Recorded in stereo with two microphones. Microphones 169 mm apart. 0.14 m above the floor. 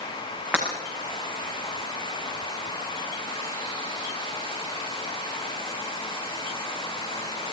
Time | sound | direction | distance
0.5 | breaking glass | 10° right (ahead or behind) | 9 m